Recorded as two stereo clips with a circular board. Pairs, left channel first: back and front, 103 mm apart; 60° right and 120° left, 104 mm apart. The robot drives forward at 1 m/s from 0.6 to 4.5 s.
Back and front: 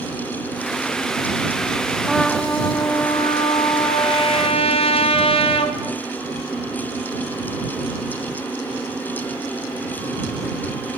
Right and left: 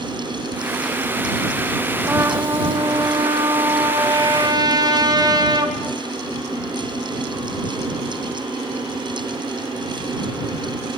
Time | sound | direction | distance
2.1 | a trumpet | 80° left | 1.1 m